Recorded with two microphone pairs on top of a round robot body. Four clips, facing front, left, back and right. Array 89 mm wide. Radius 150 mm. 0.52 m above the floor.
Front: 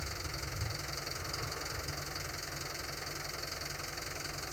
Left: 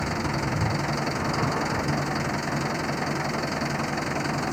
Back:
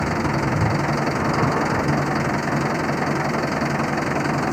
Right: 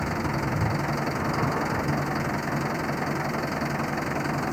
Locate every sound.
0.0 s an engine running: 175° right